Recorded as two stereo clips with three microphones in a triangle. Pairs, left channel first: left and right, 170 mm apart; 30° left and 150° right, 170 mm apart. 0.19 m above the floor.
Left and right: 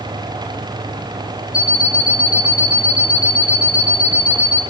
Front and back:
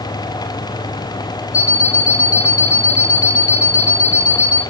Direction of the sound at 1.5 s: 5° right.